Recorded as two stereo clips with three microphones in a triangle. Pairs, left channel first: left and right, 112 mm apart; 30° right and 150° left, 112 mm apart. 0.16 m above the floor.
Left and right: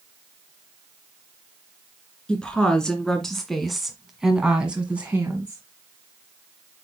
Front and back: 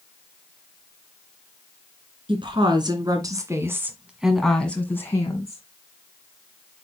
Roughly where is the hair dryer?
No hair dryer in this recording.